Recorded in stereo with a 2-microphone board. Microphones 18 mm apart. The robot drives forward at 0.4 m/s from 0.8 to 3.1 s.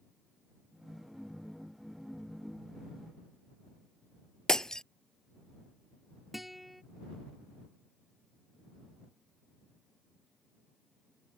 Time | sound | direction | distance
4.5 | breaking glass | 40° left (ahead or behind) | ?
6.3 | a guitar | 10° right (ahead or behind) | ?